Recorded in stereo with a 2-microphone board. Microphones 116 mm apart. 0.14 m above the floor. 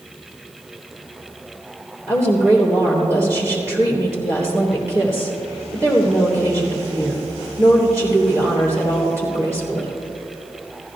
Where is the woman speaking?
25° right (ahead or behind), 3 m.